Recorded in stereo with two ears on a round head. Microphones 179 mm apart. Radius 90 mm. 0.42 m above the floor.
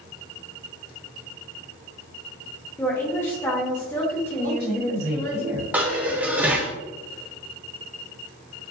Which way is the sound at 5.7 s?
10° right (ahead or behind).